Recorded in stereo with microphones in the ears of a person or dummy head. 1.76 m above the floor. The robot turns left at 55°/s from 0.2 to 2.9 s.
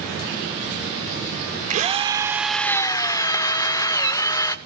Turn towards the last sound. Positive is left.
turn(degrees=160)